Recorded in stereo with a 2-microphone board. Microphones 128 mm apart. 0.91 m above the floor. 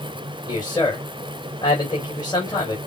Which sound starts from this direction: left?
A man speaking, at 0.5 s.